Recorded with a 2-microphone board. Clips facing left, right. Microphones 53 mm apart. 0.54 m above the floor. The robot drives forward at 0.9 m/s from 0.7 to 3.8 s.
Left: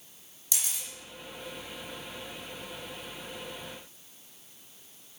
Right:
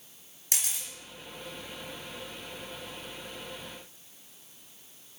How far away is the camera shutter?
About 3.5 m.